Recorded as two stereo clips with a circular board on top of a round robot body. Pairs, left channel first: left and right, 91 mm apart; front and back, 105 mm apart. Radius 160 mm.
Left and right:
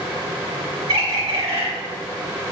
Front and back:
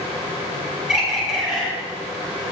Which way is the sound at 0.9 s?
95° right.